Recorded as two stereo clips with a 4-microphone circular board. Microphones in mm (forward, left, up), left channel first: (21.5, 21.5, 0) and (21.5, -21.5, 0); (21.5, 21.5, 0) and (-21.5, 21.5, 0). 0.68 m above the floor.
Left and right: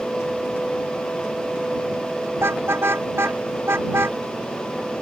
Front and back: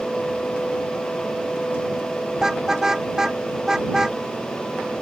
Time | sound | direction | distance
2.4 | a car horn | 105° right | ?